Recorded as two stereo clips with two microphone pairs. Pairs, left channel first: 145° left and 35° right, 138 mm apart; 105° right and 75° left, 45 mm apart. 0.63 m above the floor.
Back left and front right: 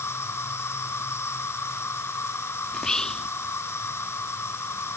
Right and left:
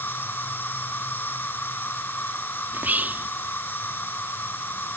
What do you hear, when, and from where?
0.0 s an insect: 145° right
2.7 s whispering: 60° left